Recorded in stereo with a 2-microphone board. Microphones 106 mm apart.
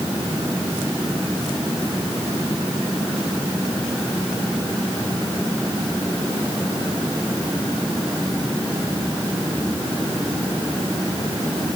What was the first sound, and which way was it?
Only background noise.